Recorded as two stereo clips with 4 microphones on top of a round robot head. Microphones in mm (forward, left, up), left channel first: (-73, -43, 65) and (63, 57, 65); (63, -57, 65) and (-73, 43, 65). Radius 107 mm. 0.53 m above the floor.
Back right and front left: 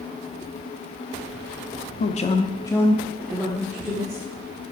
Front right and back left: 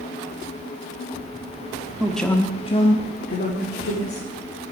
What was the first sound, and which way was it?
A man speaking, 135° right.